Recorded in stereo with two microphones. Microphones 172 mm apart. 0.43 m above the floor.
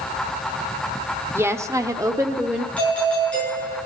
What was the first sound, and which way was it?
A woman speaking, 15° right (ahead or behind).